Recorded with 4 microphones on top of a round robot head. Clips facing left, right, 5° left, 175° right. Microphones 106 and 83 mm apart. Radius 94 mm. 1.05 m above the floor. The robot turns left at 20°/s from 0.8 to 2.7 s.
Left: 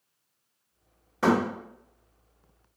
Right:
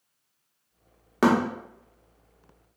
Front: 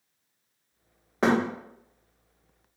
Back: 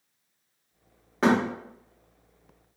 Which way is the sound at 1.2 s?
80° right.